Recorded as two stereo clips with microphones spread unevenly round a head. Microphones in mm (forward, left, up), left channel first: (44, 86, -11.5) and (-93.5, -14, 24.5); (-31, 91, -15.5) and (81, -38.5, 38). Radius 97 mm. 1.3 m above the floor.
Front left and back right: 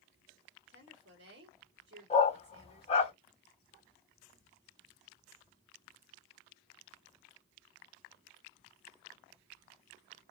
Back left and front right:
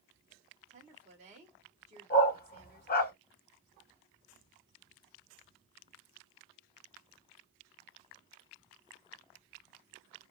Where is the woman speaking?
105° right, 2.5 m.